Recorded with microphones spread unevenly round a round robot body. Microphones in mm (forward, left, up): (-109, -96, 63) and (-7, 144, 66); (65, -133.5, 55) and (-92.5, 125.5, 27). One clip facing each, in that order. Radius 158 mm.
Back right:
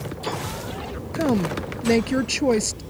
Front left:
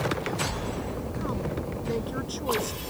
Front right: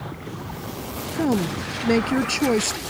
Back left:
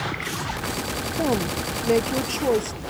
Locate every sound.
1.1 s a woman speaking: 120° right; by 2.8 s 100° right